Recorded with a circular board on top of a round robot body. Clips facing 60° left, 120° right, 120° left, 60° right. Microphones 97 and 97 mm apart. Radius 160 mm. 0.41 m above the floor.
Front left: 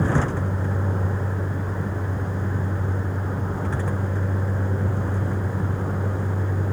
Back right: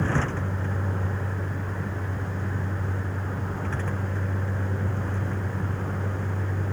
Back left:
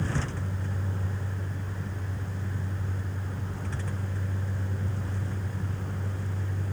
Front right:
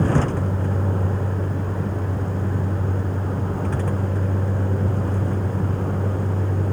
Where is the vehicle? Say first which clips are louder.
Front left 4 dB, front right 12 dB; 20° right.